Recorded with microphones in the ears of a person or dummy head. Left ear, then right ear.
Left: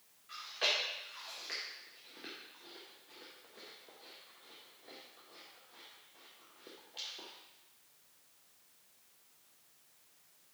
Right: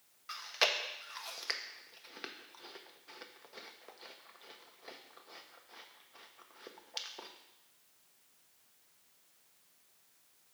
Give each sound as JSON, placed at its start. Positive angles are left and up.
{"t": 0.3, "sound": "chewing", "side_deg": -55, "distance_m": 0.6}